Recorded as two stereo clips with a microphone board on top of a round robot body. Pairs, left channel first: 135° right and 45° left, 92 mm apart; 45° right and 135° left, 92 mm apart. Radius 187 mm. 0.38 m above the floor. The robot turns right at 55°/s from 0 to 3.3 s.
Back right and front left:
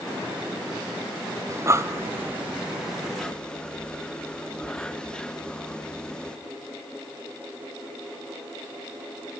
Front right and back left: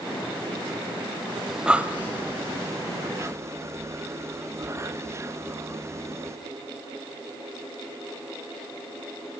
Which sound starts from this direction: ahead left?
Breathing, at 1.5 s.